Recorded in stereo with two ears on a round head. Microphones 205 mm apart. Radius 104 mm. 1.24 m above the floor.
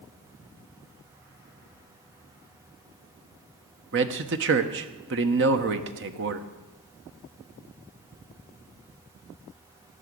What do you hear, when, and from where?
3.9 s a man speaking: 55° right (ahead or behind), 1.1 m